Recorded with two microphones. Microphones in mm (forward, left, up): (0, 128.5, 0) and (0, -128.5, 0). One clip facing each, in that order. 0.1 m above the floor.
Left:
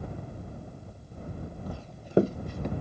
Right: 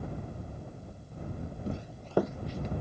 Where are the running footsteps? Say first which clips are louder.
Right 3 dB; 25° right (ahead or behind); by 2.7 s 60° left (ahead or behind).